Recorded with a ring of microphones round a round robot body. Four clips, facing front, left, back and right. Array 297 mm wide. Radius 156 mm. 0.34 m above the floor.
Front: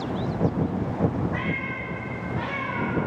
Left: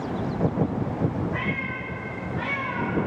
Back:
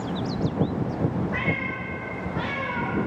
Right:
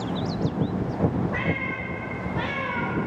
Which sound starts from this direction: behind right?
A cat meowing, at 1.3 s.